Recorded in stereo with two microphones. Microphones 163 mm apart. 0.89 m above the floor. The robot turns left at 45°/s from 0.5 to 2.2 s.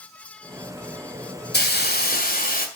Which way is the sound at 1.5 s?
85° left.